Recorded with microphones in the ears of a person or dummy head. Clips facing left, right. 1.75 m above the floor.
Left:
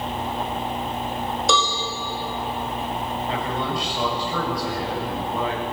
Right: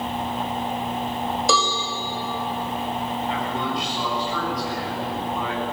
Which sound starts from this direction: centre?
A cowbell, at 1.5 s.